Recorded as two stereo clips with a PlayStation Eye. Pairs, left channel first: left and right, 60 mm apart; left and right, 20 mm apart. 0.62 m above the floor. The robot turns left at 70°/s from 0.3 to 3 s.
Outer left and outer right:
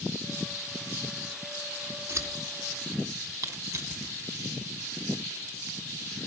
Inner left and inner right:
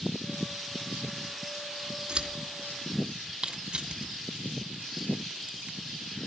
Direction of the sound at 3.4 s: 70° right (ahead or behind).